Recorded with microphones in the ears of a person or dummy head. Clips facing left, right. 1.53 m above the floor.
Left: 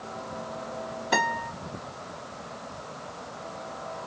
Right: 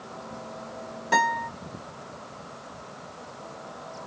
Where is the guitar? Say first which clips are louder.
Right 2 dB; 35° right (ahead or behind), 1.3 m.